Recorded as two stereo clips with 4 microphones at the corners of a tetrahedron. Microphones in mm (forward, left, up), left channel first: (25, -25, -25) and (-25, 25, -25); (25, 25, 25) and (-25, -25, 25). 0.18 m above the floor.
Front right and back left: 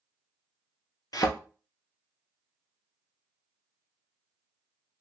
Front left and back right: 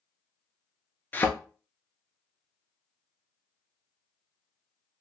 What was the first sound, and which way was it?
A thud, 20° right.